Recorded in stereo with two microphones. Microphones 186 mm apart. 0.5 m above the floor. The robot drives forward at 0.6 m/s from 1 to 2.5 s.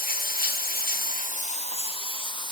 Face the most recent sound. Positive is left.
turn(degrees=25)  # may be behind; listen again after turning